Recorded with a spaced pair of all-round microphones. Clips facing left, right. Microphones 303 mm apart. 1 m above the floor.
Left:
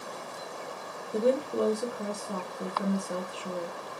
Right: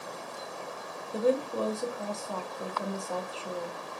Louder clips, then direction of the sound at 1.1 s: Left 1 dB; 20° left (ahead or behind).